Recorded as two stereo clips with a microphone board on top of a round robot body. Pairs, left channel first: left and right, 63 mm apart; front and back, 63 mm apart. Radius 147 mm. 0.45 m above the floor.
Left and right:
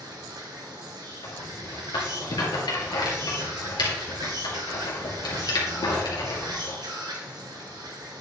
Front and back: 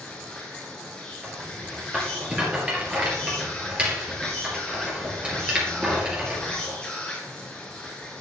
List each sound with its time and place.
0.0 s an insect: 80° right, 1.7 m
1.2 s a rattle: 105° left, 2.5 m